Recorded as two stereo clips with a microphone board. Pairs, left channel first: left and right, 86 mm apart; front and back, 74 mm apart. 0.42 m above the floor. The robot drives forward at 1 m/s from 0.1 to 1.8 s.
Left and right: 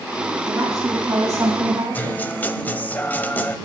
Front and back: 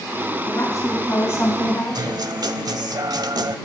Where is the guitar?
160° left, 0.7 m.